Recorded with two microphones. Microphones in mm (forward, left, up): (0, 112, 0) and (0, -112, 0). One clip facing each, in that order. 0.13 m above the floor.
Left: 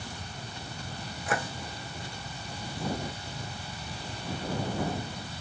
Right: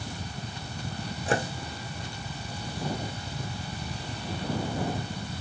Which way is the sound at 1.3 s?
30° right (ahead or behind).